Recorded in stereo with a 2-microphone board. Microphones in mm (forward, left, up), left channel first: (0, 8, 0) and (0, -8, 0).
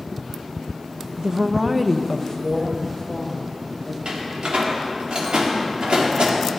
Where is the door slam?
80° right, 1.9 m.